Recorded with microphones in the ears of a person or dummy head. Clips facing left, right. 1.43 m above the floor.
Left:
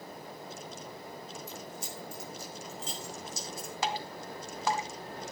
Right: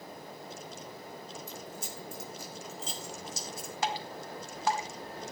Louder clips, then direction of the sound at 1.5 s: Even; 85° right.